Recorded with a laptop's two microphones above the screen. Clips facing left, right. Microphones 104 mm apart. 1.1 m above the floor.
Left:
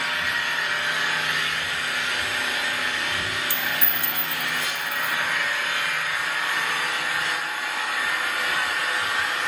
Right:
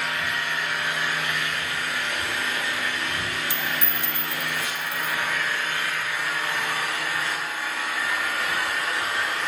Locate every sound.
0.0 s an engine running: 20° left (ahead or behind), 9.5 m
3.5 s a dropped coin: 20° right (ahead or behind), 0.6 m